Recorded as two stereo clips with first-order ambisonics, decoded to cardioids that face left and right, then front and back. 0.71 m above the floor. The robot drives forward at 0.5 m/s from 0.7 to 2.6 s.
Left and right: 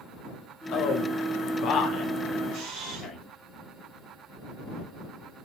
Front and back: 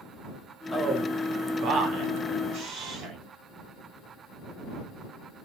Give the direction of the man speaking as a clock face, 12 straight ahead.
9 o'clock.